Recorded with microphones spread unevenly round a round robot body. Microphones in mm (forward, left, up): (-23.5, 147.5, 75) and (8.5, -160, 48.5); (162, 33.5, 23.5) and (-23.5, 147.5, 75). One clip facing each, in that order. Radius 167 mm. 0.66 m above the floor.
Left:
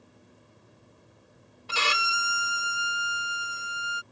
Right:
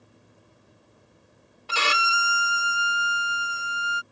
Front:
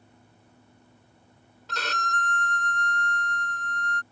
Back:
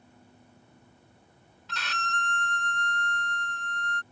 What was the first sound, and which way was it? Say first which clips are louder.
A violin: right 3 dB, front 5 dB; 85° right.